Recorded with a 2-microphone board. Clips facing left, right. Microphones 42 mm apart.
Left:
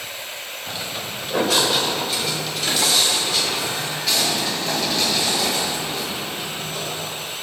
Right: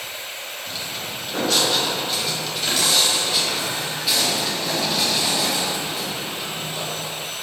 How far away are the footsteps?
About 2.5 m.